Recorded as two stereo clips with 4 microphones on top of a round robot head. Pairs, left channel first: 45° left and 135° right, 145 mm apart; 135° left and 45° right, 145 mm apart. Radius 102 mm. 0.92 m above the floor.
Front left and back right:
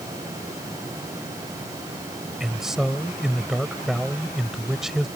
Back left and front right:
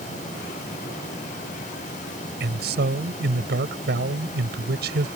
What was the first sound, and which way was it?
A man speaking, 45° right.